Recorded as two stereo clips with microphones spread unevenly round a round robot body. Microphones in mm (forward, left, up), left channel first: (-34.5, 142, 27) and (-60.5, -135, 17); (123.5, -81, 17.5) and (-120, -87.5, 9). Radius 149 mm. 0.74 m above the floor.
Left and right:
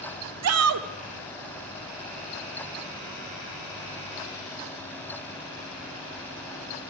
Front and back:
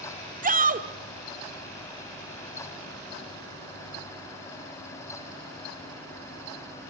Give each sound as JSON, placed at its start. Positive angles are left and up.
{"t": 0.4, "sound": "a shout", "azimuth_deg": -125, "distance_m": 1.8}